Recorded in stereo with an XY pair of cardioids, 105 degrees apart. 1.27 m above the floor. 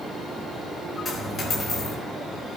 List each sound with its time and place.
1.1 s a dropped coin: 55° left, 3.5 m